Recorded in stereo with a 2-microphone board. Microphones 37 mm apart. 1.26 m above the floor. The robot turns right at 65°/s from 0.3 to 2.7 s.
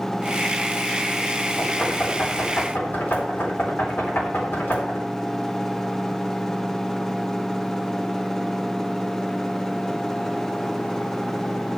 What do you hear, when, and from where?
1.6 s knocking: centre (ahead or behind), 3.5 m; by 5.1 s 70° left (ahead or behind), 3.5 m